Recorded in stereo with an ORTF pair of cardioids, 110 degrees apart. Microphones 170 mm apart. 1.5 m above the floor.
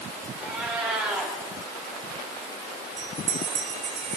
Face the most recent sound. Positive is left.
turn(degrees=-40)